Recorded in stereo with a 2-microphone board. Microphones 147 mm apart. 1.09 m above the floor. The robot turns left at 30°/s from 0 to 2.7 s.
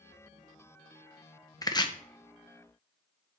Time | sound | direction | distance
1.6 | chopping | 25° left (ahead or behind) | 0.8 m